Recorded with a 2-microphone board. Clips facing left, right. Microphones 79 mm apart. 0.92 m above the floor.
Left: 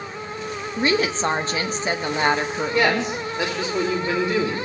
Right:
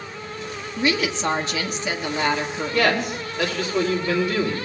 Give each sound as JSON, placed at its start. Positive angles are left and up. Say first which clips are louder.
{"t": 0.8, "sound": "a woman speaking", "louder": "left 2 dB", "side_deg": 35, "distance_m": 1.4}
{"t": 2.7, "sound": "a man speaking", "louder": "even", "side_deg": 20, "distance_m": 3.0}